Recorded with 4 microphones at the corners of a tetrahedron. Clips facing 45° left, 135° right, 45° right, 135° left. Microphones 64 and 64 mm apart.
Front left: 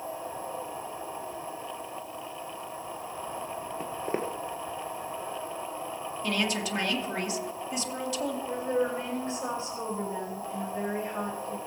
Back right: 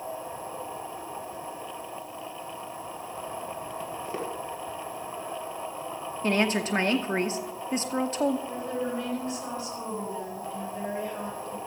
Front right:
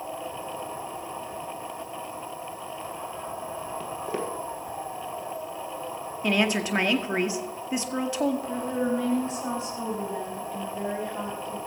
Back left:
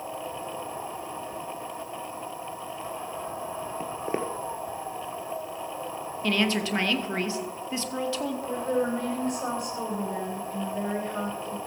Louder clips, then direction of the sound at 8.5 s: Front left 3 dB, back left 1 dB; 105° left.